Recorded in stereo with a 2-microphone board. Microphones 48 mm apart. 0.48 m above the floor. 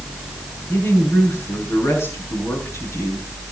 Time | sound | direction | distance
0.7 | a woman speaking | 65° left (ahead or behind) | 6 m